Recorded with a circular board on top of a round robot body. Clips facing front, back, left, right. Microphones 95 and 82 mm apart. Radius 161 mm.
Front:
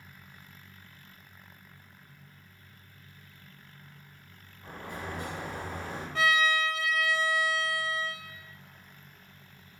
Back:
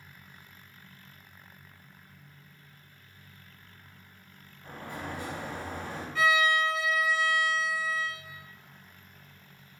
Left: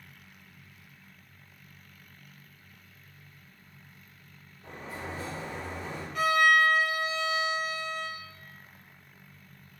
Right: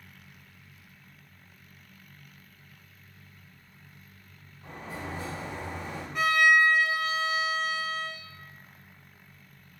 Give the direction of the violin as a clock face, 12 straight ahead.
1 o'clock.